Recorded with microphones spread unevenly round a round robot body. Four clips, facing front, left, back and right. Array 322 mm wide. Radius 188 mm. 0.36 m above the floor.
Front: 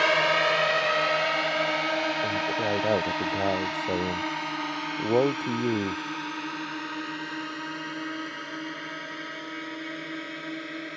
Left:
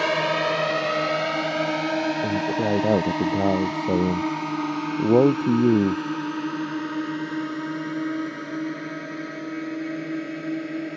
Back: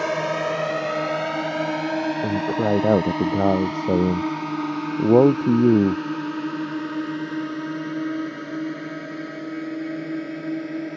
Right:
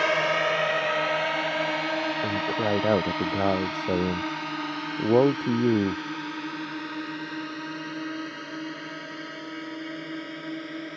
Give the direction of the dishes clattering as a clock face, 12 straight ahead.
I don't hear dishes clattering.